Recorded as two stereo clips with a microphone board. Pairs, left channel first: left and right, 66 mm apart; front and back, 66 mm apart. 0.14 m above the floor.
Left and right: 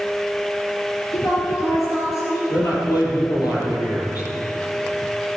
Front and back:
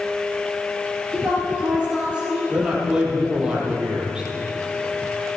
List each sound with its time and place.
1.1 s a woman speaking: 110° left, 2.5 m
2.5 s a man speaking: 105° left, 3.5 m